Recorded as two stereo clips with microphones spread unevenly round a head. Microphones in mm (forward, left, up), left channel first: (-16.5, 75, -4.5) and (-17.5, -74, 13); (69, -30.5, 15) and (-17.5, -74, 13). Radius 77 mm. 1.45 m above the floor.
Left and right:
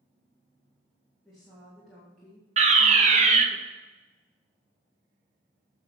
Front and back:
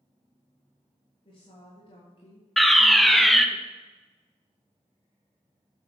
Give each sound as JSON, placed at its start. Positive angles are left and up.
{"t": 1.2, "sound": "a woman speaking", "azimuth_deg": -5, "distance_m": 3.0}
{"t": 2.6, "sound": "a fire alarm", "azimuth_deg": -60, "distance_m": 1.2}